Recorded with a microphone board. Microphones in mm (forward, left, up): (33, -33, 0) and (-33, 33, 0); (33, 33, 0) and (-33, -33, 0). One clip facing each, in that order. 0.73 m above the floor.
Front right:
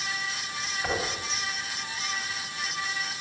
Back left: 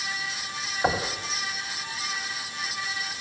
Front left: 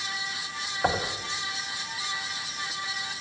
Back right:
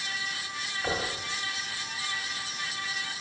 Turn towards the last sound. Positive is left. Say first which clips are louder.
# back left 5 dB, front left 5 dB
turn(degrees=85)